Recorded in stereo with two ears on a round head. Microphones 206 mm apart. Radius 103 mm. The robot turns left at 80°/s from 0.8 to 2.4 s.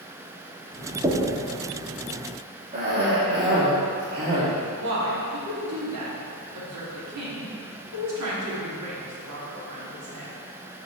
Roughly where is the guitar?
No guitar in this recording.